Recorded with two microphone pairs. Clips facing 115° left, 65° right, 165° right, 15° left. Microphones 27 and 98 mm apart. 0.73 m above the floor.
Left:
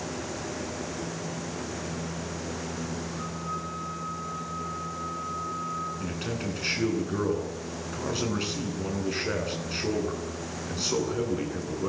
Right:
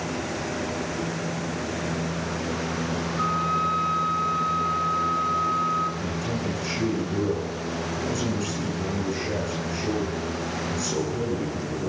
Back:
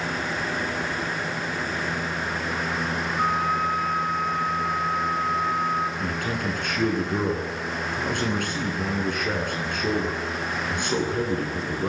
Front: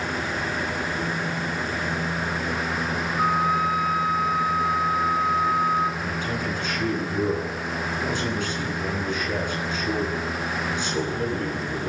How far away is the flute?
About 3 m.